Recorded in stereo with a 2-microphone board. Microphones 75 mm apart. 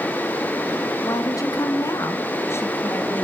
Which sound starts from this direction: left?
A woman speaking, at 1.0 s.